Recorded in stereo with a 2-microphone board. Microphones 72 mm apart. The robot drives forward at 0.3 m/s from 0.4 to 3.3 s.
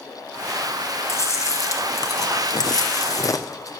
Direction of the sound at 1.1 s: 40° left (ahead or behind).